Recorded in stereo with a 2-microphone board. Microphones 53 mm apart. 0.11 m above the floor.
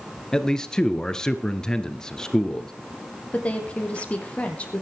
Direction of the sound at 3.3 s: 25° left (ahead or behind).